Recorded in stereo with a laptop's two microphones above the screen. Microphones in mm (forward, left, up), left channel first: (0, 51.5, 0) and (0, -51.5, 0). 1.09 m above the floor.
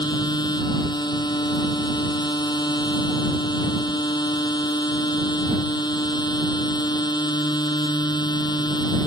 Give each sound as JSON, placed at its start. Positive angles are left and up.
{"t": 0.0, "sound": "a machine running", "side_deg": 45}